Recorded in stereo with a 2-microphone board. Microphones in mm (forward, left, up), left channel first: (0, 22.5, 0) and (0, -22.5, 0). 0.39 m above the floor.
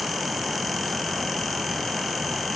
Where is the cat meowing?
No cat meowing in this recording.